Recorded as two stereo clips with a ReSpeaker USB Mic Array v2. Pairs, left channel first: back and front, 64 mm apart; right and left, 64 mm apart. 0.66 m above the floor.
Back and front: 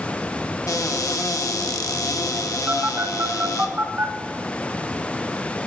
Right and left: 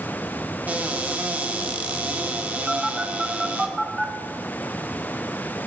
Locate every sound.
0.7 s a cupboard door: 155° left, 1.0 m
2.7 s a phone buzzing: 5° left, 1.1 m